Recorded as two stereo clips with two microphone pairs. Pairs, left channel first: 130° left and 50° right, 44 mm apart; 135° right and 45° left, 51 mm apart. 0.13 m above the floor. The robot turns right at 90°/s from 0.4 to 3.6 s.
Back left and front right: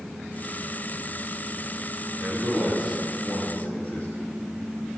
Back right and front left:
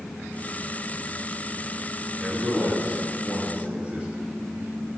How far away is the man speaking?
About 2 m.